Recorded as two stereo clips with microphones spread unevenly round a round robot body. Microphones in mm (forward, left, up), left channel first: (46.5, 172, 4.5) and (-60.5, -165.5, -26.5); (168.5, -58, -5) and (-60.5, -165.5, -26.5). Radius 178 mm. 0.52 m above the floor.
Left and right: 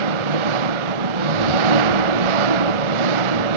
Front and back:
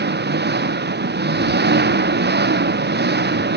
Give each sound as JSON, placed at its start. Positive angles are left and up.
{"t": 0.0, "sound": "an engine running", "azimuth_deg": -105}